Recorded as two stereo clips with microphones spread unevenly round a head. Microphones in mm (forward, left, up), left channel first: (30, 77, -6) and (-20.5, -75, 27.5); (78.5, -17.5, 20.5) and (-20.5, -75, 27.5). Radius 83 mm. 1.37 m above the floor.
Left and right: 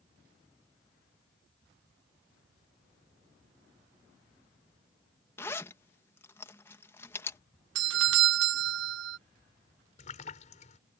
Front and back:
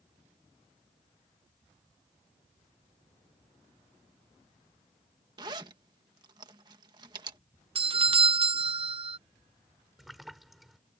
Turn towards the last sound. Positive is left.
turn(degrees=125)